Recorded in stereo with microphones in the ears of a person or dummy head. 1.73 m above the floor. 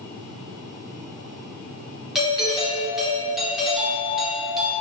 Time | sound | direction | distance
2.1 | a doorbell | centre (ahead or behind) | 2 m